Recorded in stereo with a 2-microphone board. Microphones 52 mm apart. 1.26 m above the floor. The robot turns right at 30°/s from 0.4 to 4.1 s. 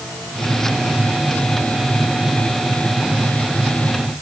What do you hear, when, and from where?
Only background noise.